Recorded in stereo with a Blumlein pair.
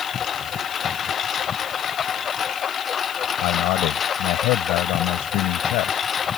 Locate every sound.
0.0 s a lawn mower: 25° left; by 6.4 s 20° left
3.4 s a man speaking: 40° left